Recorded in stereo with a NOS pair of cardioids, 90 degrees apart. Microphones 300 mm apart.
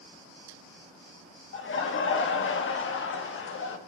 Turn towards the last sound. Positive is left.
turn(degrees=45)